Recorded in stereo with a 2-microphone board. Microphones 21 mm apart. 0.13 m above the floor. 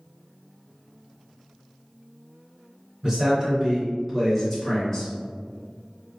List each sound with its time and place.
3.0 s a man speaking: 35° right (ahead or behind), 1.7 m; by 5.1 s 15° left (ahead or behind), 1.4 m